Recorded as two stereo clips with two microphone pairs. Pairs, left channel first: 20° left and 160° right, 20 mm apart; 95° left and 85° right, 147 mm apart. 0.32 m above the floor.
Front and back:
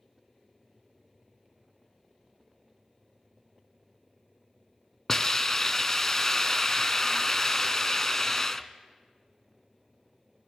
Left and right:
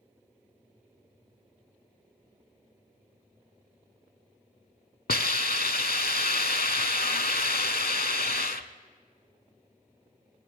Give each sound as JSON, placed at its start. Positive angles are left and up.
{"t": 5.1, "sound": "a hiss", "azimuth_deg": 90, "distance_m": 0.6}